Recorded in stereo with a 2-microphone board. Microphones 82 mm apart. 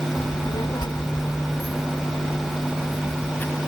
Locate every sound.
0.2 s a child speaking: 80° left; by 3.6 s 20° left (ahead or behind)